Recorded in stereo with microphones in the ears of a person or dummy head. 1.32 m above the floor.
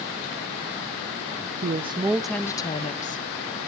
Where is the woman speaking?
35° right (ahead or behind), 0.6 m; by 3.7 s 55° left (ahead or behind), 1.0 m.